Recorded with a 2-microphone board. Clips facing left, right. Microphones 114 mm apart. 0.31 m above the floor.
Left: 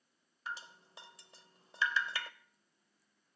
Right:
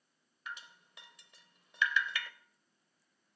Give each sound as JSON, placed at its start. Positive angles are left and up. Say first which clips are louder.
{"t": 0.5, "sound": "dripping", "louder": "left 3 dB", "side_deg": 30, "distance_m": 0.6}